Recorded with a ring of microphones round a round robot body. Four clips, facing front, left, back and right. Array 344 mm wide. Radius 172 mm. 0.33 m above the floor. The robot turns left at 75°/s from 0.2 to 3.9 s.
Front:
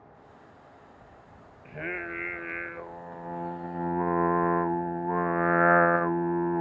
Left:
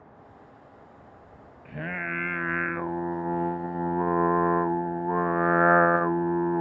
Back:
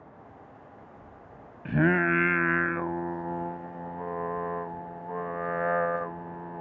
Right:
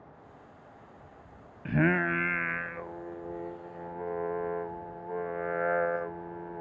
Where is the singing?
135° right; by 6.6 s 55° left.